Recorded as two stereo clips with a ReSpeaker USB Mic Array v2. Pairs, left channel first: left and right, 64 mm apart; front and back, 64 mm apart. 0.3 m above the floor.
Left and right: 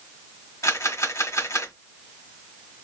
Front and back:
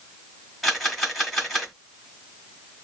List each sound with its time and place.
0.6 s a camera shutter: 85° left, 1.6 m